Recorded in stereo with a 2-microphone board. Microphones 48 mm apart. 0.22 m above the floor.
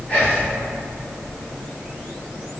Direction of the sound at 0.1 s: 35° left (ahead or behind).